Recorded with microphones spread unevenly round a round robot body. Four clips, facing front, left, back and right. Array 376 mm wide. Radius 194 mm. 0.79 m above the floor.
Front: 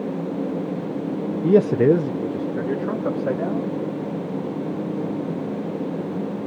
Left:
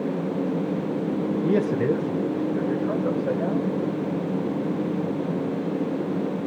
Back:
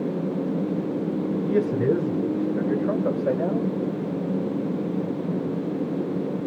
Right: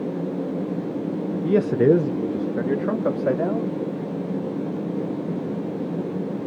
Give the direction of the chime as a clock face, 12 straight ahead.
I don't hear a chime.